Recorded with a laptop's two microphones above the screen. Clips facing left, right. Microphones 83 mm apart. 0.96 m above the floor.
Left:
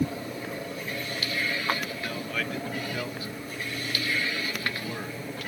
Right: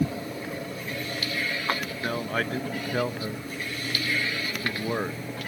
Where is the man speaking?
45° right (ahead or behind).